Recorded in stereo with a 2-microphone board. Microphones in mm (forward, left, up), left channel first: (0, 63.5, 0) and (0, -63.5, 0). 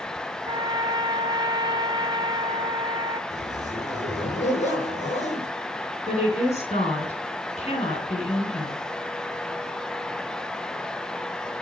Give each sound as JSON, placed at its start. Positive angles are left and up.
{"t": 0.5, "sound": "a trumpet", "side_deg": -35, "distance_m": 1.3}
{"t": 3.3, "sound": "a zipper", "side_deg": 65, "distance_m": 3.5}
{"t": 6.1, "sound": "a woman speaking", "side_deg": 60, "distance_m": 3.0}